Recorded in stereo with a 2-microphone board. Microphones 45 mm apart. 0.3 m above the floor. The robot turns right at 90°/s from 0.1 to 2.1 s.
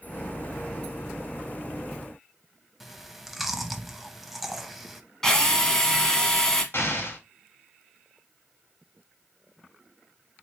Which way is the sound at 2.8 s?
5° right (ahead or behind).